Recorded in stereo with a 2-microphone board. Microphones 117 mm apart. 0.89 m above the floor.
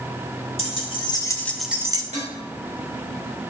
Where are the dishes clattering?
80° right, 3.5 m.